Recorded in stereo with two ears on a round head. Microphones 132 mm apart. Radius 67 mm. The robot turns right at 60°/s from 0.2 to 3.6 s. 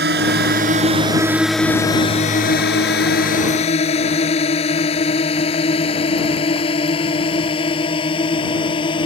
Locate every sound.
0.0 s a drone: 80° right; by 9.1 s 35° left (ahead or behind)